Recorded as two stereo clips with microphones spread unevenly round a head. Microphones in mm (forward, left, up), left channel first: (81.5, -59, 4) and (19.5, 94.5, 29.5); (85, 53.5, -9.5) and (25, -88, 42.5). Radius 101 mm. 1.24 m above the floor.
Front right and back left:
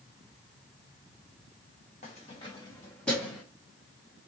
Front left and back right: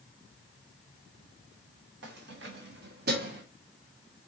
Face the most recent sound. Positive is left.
turn(degrees=-160)